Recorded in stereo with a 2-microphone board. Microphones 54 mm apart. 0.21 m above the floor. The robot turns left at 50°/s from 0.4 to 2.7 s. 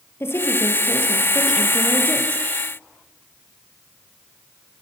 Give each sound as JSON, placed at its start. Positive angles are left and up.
{"t": 0.2, "sound": "a woman speaking", "azimuth_deg": 50, "distance_m": 5.0}